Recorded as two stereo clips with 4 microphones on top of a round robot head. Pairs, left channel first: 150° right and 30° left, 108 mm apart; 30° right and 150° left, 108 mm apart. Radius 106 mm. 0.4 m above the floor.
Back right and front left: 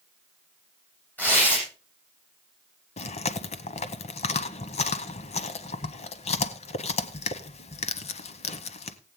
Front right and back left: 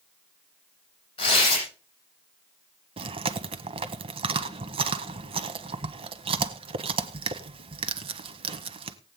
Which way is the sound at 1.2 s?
75° right.